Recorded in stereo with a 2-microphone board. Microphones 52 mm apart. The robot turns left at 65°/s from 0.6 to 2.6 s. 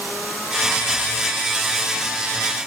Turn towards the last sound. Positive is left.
No sound to turn to.